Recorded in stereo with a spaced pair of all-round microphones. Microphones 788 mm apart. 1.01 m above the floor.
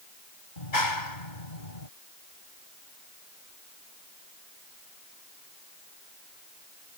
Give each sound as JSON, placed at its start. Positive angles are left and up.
{"t": 0.6, "sound": "a clap", "side_deg": 75}